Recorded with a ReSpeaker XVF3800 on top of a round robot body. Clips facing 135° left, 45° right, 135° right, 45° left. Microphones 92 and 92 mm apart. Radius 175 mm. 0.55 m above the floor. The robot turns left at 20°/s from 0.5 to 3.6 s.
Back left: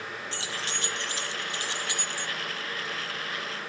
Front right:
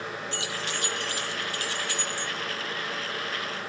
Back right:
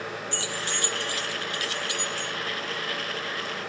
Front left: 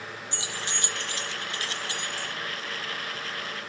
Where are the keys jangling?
105° left, 0.7 m; by 2.3 s 65° left, 0.7 m.